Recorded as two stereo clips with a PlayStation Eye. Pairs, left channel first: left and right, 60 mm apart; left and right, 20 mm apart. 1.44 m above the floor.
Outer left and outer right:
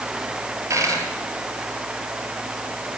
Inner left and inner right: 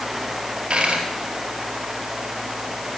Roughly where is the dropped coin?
Right.